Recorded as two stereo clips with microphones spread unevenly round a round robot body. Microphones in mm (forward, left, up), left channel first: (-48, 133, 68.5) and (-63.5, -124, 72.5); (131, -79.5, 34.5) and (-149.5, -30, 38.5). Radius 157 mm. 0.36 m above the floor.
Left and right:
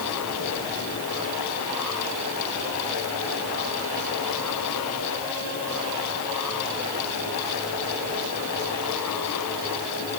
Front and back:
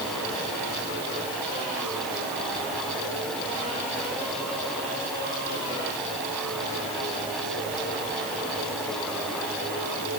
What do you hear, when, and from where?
Only background noise.